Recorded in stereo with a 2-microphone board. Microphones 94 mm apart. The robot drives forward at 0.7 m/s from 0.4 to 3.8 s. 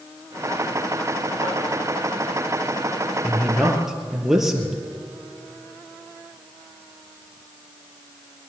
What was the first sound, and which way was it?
Tapping, 80° left.